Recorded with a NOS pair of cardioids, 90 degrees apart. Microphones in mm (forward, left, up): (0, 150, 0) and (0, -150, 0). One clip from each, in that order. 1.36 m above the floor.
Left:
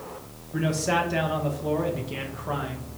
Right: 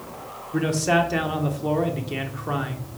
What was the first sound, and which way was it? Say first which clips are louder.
A man speaking: right 4 dB; 15° right.